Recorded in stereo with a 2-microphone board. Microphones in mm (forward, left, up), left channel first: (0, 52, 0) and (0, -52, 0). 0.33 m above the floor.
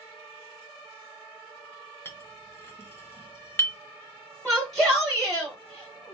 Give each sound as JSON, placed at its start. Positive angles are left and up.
{"t": 2.0, "sound": "a clink", "side_deg": 20, "distance_m": 0.7}
{"t": 4.5, "sound": "a shout", "side_deg": 0, "distance_m": 1.2}